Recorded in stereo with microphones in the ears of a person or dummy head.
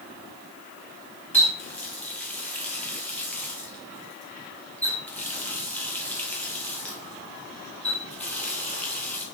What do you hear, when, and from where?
1.3 s a running tap: 10° left (ahead or behind), 0.8 m